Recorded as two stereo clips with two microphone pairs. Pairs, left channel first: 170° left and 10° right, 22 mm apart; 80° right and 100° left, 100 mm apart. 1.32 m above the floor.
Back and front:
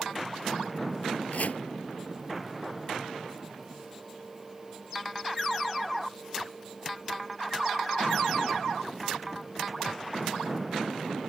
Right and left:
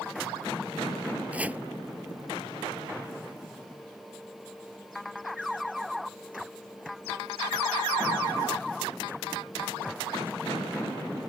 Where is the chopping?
Straight behind.